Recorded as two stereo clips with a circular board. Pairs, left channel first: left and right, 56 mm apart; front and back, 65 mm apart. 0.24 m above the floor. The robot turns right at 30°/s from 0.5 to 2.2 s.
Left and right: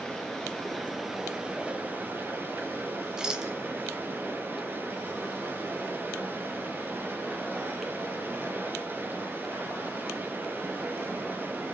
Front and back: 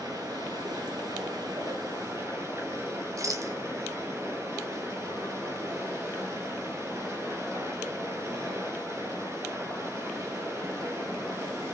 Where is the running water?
170° left, 3.5 m; by 11.8 s 140° right, 3.5 m.